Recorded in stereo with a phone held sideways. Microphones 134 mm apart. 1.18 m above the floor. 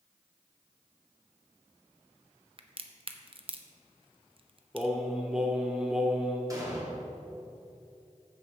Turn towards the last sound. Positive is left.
turn(degrees=-25)  # may be behind; listen again after turning